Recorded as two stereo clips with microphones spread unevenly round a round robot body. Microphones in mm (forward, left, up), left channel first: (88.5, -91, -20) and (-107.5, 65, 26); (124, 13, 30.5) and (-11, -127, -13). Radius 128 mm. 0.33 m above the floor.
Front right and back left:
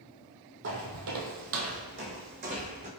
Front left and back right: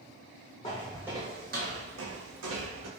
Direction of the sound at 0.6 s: 110° left.